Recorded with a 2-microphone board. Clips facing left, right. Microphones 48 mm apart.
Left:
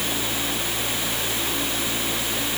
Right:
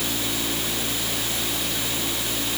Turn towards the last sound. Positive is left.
No sound to turn to.